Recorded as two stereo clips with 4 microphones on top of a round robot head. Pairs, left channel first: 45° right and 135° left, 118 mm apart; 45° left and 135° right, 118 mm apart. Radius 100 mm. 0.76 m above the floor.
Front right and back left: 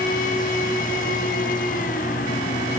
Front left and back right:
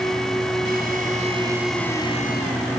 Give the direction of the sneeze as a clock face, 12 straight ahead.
I don't hear a sneeze.